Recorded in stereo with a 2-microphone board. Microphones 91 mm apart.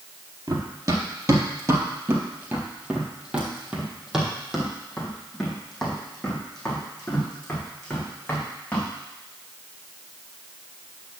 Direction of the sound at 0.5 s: 40° right (ahead or behind).